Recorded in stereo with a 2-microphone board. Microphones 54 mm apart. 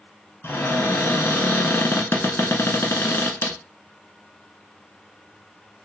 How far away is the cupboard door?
About 0.7 m.